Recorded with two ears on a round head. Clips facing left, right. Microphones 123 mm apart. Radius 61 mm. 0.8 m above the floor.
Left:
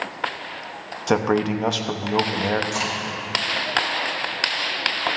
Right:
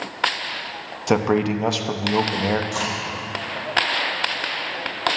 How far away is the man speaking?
About 0.7 m.